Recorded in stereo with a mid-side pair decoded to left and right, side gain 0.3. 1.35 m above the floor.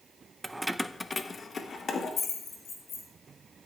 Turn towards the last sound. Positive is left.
turn(degrees=80)